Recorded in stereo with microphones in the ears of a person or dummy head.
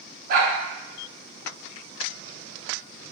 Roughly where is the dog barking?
Right.